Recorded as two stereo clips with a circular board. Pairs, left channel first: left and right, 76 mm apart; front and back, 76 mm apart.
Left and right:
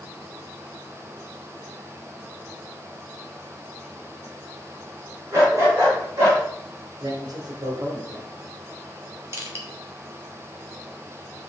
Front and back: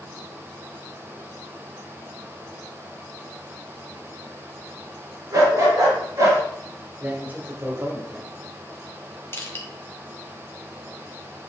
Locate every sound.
5.3 s a dog barking: 140° right, 3.5 m; by 6.4 s 135° right, 5 m
7.0 s a man speaking: 115° right, 1.8 m
9.3 s crushing: 50° right, 1.4 m